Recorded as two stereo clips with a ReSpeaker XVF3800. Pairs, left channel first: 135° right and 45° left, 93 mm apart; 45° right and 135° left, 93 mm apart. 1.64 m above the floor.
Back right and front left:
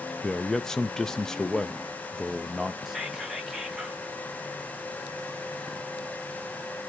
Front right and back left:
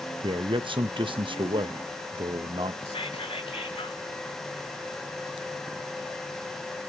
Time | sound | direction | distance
0.2 | a man speaking | 140° left | 1.0 m
2.9 | whispering | 40° right | 2.5 m